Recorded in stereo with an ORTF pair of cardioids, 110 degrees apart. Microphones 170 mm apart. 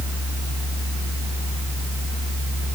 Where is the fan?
15° right, 3 m.